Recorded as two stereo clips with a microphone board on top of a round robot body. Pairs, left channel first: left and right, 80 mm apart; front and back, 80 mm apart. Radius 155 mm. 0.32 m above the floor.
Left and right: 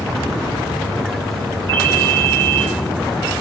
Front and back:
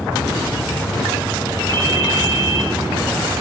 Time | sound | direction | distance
1.7 | a ringtone | 40° right | 3.5 m